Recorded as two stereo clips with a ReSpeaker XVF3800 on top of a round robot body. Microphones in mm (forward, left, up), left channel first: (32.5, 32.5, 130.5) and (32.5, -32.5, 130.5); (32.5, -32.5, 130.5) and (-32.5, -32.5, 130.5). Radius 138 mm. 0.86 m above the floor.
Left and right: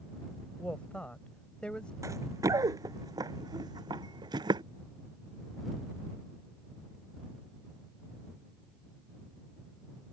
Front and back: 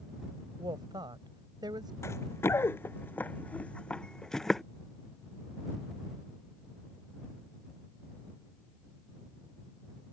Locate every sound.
0.6 s a woman speaking: 165° left; by 1.9 s 170° left
2.0 s running footsteps: 50° right; by 4.6 s 90° right